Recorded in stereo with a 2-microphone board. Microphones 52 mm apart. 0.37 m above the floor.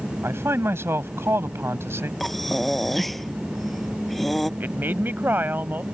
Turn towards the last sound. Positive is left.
turn(degrees=-40)  # may be behind; listen again after turning